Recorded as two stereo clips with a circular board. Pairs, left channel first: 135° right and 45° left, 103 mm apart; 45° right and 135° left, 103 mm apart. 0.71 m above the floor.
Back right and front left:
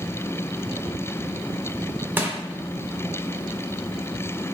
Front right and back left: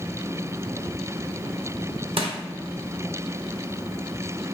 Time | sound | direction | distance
2.2 | crushing | 115° left | 0.6 m